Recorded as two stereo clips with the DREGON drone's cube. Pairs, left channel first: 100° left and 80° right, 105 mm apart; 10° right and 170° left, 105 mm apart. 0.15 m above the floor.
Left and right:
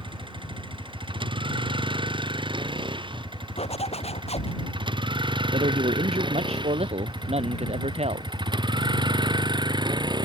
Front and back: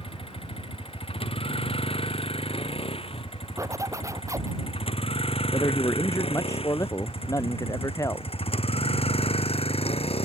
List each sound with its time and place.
0.0 s a vehicle: 40° right; by 10.3 s 35° right
3.6 s a zipper: 110° left
5.5 s a man speaking: 70° right